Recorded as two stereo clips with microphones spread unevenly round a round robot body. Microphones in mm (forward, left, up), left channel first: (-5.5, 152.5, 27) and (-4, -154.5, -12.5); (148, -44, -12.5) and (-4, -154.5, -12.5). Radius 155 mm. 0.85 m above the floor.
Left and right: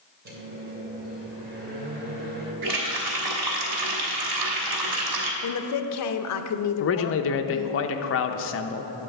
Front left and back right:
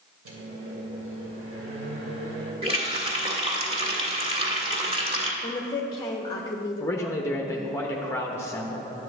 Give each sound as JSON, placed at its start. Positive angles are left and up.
{"t": 0.2, "sound": "a microwave", "azimuth_deg": -150, "distance_m": 2.5}
{"t": 2.6, "sound": "a running tap", "azimuth_deg": -85, "distance_m": 1.7}
{"t": 5.4, "sound": "a woman speaking", "azimuth_deg": 100, "distance_m": 0.6}
{"t": 6.8, "sound": "a man speaking", "azimuth_deg": 105, "distance_m": 0.5}